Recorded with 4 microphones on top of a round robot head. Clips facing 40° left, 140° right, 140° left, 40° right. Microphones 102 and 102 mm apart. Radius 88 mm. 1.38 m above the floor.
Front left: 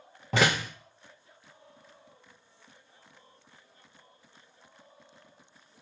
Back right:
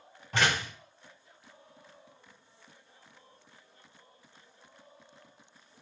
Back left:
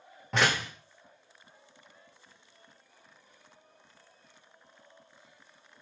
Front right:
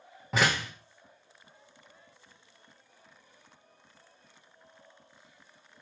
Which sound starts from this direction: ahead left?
A door slam, at 0.3 s.